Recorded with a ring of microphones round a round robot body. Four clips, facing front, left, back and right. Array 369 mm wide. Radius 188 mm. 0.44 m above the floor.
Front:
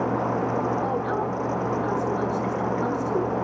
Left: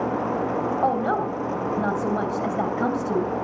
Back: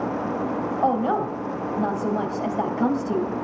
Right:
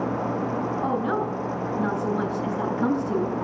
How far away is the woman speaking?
About 2.5 m.